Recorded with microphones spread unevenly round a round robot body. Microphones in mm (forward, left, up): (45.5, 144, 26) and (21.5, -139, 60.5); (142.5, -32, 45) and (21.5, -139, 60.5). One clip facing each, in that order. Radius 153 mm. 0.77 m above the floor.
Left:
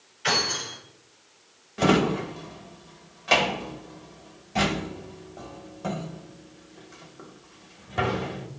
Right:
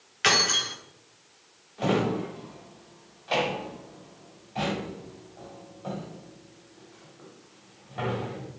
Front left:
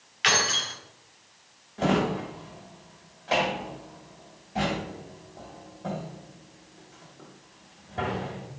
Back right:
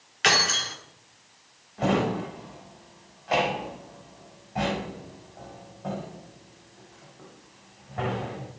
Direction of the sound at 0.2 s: 95° right.